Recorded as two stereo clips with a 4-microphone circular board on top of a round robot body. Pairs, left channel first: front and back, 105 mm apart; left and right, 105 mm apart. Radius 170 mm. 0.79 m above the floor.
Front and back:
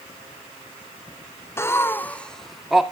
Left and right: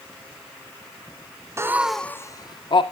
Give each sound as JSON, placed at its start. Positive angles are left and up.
{"t": 1.6, "sound": "laughter", "azimuth_deg": -50, "distance_m": 0.6}